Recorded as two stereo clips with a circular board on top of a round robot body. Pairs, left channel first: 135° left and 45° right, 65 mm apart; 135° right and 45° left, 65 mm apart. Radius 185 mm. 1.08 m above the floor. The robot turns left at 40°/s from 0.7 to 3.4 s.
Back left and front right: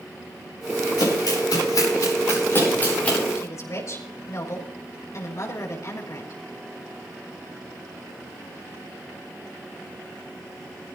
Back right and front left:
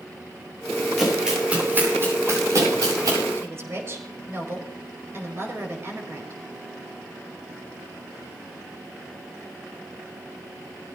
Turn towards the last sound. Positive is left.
turn(degrees=95)